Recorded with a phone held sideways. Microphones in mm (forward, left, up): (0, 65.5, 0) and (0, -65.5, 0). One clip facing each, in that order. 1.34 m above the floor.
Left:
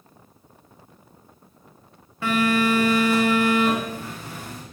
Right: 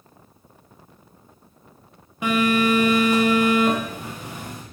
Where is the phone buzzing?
20° right (ahead or behind), 1.3 m.